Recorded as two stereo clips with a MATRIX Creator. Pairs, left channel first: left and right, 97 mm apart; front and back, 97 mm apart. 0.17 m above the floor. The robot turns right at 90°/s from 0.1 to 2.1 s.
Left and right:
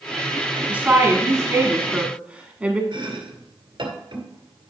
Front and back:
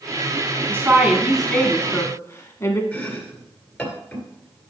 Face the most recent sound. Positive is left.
turn(degrees=-75)